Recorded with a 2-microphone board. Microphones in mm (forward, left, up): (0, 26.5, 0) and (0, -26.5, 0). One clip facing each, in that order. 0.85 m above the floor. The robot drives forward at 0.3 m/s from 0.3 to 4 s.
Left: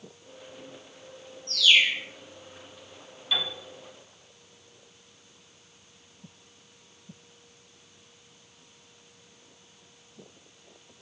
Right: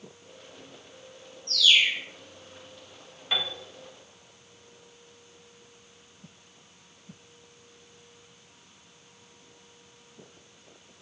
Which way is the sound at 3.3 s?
40° right (ahead or behind).